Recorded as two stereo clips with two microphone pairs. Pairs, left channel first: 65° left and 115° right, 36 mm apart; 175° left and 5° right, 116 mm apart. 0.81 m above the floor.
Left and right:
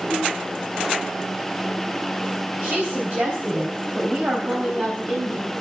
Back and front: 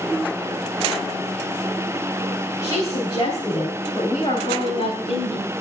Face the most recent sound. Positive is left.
turn(degrees=-155)